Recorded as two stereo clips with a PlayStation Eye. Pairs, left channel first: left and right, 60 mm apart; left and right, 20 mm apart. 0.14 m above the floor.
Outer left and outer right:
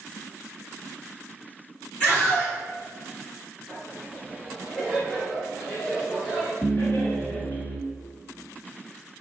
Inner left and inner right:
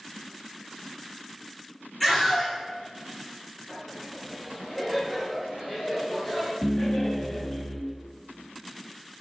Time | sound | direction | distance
2.0 | a scream | 20° left (ahead or behind) | 1.7 m
3.7 | laughter | 10° left (ahead or behind) | 1.7 m
6.6 | laughter | 40° left (ahead or behind) | 1.9 m